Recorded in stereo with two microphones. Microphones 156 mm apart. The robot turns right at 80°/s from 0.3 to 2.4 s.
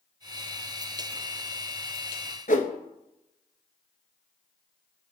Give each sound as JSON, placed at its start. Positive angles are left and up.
{"t": 2.5, "sound": "a whoosh", "side_deg": 60, "distance_m": 0.6}